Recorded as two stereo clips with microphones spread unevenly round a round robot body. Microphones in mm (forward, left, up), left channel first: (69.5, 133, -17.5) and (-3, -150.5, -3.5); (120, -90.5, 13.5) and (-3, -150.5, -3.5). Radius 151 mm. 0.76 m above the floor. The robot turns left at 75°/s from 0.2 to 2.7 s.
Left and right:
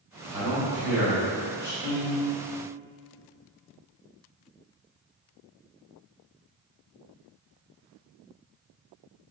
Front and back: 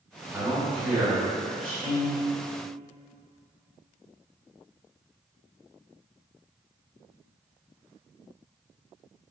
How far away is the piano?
About 1.0 m.